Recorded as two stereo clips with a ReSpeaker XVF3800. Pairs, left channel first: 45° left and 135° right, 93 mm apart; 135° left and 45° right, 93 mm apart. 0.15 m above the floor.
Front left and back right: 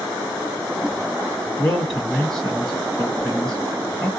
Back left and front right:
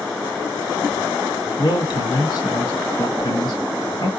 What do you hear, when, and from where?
1.6 s a man speaking: 130° left, 1.8 m